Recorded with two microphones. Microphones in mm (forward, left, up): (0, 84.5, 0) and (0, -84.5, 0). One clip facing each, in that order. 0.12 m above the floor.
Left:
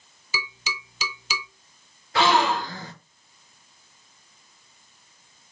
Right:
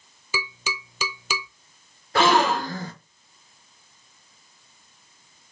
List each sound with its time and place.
0.3 s tapping: 50° right (ahead or behind), 0.8 m
2.1 s a gasp: 45° right (ahead or behind), 0.6 m